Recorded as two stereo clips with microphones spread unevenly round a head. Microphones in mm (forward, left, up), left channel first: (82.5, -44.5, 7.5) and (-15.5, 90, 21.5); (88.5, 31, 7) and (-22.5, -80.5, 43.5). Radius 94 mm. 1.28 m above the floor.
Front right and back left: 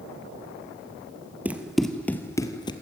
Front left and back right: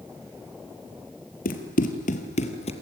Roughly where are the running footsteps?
Ahead left.